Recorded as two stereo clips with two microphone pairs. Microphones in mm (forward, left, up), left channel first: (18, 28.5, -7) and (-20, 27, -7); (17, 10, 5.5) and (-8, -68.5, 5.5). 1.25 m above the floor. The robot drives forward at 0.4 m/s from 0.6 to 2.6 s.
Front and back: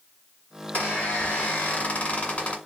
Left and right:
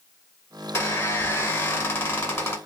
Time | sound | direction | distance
0.7 | a squeak | 20° left | 1.9 m